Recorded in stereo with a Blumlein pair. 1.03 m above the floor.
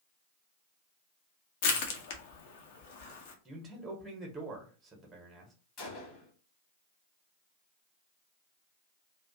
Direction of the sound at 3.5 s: 15° right.